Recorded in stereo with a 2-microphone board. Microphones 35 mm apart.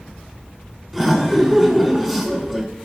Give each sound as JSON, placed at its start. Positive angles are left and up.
{"t": 0.9, "sound": "laughter", "side_deg": -5, "distance_m": 3.0}